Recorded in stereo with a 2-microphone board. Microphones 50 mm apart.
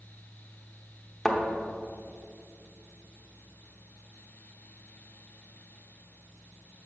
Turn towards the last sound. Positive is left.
turn(degrees=0)  # may be behind; listen again after turning